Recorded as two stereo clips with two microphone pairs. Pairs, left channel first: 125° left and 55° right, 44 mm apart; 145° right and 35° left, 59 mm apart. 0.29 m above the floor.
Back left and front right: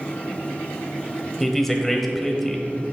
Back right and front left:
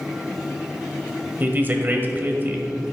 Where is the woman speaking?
45° left, 1.0 m.